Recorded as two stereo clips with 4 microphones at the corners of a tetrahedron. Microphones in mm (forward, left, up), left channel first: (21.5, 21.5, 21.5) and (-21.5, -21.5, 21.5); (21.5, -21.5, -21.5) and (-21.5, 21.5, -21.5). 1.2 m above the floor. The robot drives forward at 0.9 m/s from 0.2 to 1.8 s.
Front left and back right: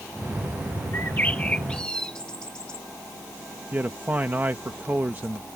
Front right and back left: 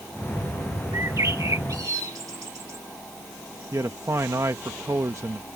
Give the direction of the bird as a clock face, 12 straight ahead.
9 o'clock.